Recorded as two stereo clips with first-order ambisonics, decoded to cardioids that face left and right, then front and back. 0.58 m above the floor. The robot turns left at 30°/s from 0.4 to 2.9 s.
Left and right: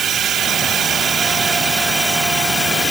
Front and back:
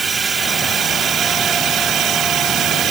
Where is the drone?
120° right; by 2.9 s 165° left.